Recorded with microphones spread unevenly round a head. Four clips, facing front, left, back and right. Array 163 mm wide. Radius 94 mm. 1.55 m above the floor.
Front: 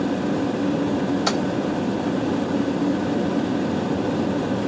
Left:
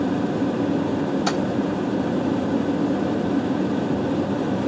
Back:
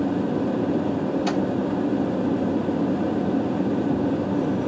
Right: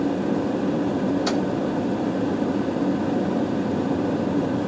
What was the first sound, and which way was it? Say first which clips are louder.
Keys jangling: even, front 1 dB; 25° left.